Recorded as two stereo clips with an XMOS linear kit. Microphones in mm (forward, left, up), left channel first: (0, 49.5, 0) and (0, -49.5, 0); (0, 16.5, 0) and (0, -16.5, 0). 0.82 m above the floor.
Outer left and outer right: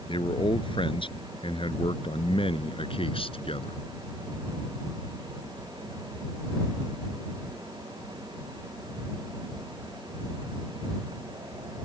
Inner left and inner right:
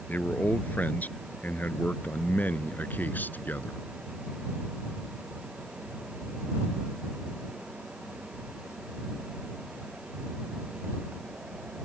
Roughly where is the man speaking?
Left.